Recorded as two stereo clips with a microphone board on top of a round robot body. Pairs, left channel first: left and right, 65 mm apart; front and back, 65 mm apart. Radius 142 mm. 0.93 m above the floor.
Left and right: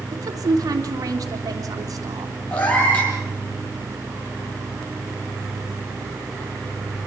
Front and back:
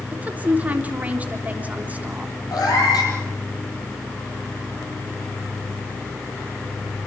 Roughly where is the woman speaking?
Behind right.